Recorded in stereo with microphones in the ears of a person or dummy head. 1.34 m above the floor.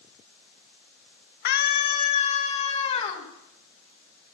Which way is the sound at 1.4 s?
50° left (ahead or behind).